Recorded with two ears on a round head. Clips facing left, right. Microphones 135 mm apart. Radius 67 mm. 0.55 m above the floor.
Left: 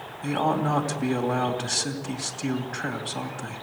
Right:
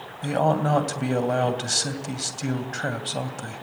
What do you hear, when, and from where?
0.2 s a man speaking: 45° right (ahead or behind), 2.5 m